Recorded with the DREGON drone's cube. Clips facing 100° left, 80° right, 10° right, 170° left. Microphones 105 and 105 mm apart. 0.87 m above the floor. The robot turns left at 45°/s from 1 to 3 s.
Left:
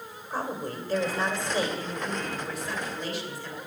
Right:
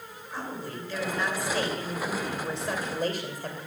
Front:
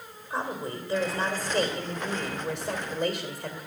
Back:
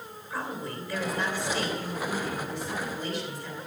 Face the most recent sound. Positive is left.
turn(degrees=-35)